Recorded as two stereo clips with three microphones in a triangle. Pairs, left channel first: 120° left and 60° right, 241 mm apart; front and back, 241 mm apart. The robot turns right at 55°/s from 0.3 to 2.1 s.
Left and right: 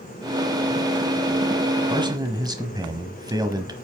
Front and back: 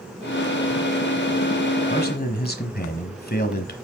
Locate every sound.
1.9 s a man speaking: 5° right, 1.2 m; by 3.7 s 5° left, 1.2 m